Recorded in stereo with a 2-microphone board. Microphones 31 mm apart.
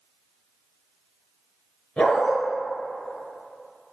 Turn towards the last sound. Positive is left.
turn(degrees=25)  # may be behind; listen again after turning